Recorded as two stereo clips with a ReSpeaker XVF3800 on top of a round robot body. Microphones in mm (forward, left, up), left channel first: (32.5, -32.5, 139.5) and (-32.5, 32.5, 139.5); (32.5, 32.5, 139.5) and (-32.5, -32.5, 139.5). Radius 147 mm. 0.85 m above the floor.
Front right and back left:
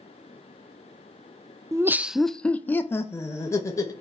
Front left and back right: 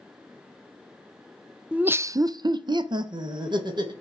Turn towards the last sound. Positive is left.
turn(degrees=-100)